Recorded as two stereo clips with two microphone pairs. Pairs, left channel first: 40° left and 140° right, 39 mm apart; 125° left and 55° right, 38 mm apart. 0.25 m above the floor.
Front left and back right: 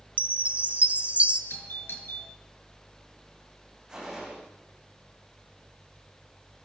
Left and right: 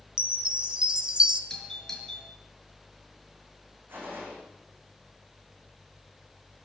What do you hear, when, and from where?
0.2 s a chime: 110° right, 1.9 m
1.5 s a doorbell: 50° left, 5.5 m
3.9 s a gunshot: 70° right, 10 m